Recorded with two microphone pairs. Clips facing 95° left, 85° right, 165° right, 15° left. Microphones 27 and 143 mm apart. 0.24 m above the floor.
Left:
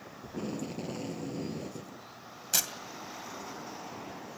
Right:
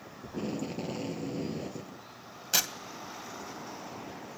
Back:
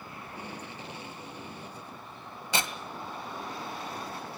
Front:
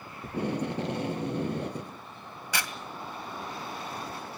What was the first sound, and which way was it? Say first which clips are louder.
Tape being pulled: right 2 dB, front 14 dB; 5° right.